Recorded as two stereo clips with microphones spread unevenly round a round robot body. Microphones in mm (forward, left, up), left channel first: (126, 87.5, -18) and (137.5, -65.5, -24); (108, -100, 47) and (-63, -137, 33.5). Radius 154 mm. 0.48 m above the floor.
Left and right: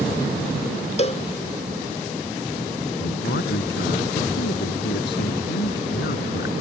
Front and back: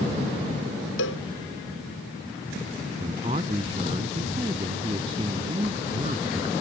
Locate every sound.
1.0 s a cowbell: 45° left
3.0 s a man speaking: 120° left